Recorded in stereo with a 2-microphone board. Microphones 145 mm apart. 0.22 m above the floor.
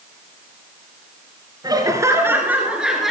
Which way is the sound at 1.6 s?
30° right (ahead or behind).